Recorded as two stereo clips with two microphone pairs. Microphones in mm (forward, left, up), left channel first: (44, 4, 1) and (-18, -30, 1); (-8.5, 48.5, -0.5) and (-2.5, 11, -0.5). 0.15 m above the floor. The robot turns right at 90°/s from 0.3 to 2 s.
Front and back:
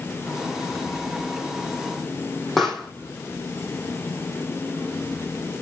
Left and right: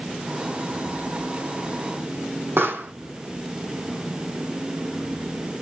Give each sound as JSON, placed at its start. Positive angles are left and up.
{"t": 2.6, "sound": "a pop", "azimuth_deg": -60, "distance_m": 6.0}